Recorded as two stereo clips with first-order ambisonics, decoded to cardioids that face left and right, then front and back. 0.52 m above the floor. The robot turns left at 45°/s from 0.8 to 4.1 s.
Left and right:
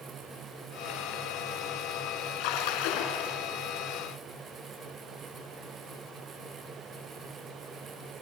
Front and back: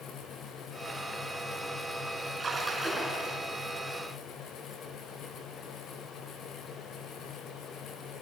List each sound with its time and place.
2.4 s a splash: 110° left, 2.5 m; by 3.4 s 60° left, 2.5 m